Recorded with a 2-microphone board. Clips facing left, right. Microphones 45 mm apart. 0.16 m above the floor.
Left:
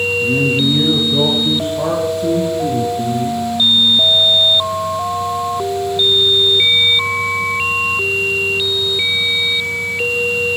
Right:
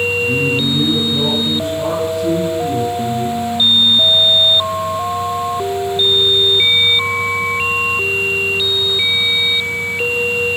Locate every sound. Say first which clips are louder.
0.2 s a man speaking: left 1 dB; 60° left (ahead or behind), 5 m; by 3.4 s 55° left (ahead or behind), 8 m